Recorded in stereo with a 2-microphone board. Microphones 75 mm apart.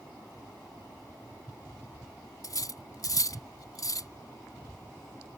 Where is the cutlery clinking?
55° left (ahead or behind).